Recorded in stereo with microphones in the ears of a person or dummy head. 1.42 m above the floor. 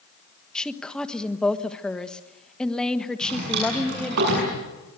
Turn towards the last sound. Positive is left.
turn(degrees=-55)  # may be behind; listen again after turning